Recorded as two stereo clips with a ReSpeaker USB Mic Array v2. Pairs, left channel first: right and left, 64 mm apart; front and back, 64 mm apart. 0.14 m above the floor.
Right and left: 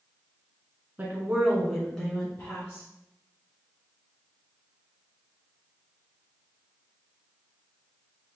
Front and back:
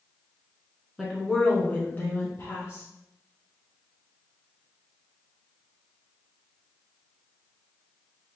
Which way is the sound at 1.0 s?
95° left.